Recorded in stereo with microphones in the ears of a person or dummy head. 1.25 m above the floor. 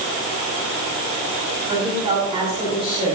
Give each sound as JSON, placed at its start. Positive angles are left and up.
{"t": 1.7, "sound": "a woman speaking", "side_deg": -25, "distance_m": 7.5}